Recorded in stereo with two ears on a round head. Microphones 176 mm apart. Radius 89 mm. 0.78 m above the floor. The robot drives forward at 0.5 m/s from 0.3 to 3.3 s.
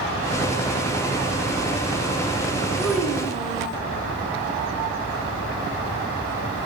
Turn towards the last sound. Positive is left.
turn(degrees=0)  # may be behind; listen again after turning